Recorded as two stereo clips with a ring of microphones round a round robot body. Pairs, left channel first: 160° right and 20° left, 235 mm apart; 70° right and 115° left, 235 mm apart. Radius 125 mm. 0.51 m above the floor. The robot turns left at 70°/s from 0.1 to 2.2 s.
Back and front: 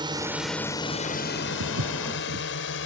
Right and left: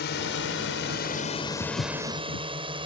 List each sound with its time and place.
0.0 s a drone: 45° right; by 2.9 s straight behind
1.6 s footsteps: 15° left; by 2.5 s 25° right